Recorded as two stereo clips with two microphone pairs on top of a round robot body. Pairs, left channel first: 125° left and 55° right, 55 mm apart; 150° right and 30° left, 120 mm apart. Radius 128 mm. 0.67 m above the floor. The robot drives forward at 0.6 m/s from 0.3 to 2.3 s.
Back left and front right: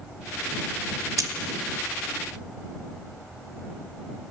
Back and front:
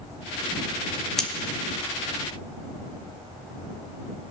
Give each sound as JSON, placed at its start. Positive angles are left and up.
{"t": 1.2, "sound": "cutlery clinking", "azimuth_deg": -65, "distance_m": 0.5}